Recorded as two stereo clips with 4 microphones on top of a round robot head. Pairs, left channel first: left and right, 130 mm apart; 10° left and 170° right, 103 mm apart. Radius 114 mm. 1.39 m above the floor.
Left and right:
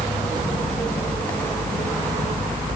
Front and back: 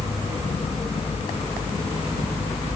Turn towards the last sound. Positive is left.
No sound to turn to.